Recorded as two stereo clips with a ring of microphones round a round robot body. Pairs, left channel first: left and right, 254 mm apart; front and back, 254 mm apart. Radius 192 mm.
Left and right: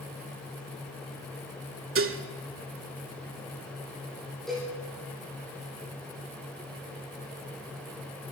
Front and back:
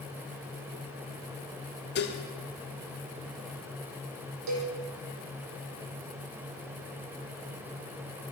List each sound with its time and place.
1.9 s dishes clattering: 55° right, 1.7 m
4.5 s a cowbell: straight behind, 7.5 m